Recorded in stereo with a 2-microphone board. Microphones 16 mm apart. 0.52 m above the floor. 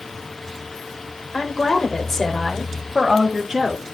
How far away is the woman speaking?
About 1.9 m.